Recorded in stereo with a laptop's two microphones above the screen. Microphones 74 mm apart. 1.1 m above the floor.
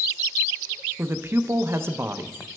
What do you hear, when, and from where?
1.0 s a man speaking: 35° right (ahead or behind), 0.5 m